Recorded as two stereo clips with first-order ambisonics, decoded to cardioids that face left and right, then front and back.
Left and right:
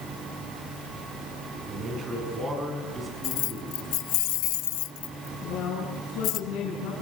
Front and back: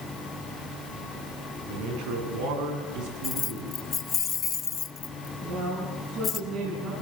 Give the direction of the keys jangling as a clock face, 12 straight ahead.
10 o'clock.